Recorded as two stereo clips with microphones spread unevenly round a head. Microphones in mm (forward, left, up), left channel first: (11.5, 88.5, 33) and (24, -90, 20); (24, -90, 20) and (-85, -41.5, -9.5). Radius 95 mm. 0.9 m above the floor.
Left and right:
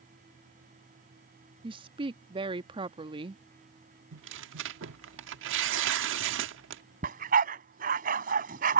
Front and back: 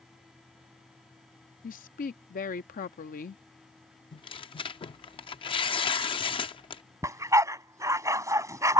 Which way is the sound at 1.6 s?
25° right.